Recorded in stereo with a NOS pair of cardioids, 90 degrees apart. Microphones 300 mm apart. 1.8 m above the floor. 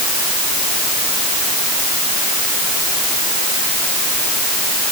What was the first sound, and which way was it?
Only background noise.